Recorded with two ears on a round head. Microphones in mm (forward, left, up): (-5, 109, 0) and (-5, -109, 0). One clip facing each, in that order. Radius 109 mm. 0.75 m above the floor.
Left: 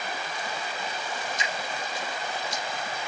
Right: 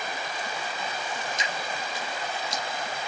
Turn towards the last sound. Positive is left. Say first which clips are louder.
# even
turn(degrees=-60)  # may be behind; listen again after turning